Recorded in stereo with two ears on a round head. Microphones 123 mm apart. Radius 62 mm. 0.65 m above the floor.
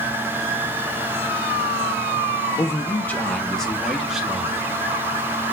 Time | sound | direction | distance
2.6 | a man speaking | 20° left (ahead or behind) | 1.1 m